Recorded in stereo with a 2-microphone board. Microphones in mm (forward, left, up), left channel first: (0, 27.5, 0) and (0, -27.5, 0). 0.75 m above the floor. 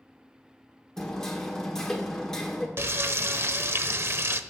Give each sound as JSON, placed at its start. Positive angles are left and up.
{"t": 1.0, "sound": "hammering", "side_deg": 10, "distance_m": 1.6}
{"t": 2.8, "sound": "frying", "side_deg": -50, "distance_m": 0.6}